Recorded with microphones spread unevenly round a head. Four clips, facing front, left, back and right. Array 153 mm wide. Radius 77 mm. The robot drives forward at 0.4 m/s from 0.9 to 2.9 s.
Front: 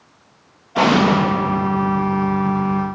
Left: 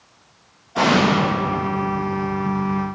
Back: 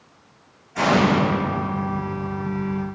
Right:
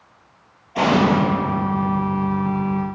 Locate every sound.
0.8 s an explosion: straight ahead, 1.4 m; by 1.2 s 5° left, 1.3 m